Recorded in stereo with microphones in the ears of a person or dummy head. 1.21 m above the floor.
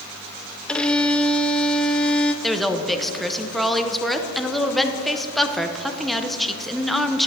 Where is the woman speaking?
Centre (ahead or behind), 0.8 m.